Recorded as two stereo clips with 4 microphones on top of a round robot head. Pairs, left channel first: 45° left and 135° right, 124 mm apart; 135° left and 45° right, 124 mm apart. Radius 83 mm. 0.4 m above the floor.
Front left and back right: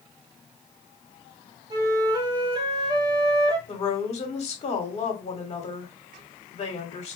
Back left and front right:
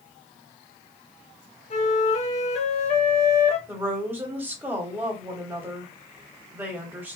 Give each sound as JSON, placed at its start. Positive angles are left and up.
{"t": 1.7, "sound": "a flute", "azimuth_deg": 165, "distance_m": 0.8}
{"t": 3.7, "sound": "a woman speaking", "azimuth_deg": 25, "distance_m": 1.2}